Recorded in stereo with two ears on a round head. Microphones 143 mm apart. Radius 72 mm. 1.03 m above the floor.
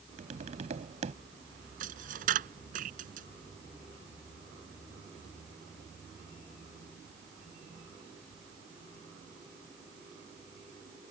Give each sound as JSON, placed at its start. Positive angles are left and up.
{"t": 0.2, "sound": "tapping", "side_deg": -45}
{"t": 1.8, "sound": "a dropped coin", "side_deg": -55}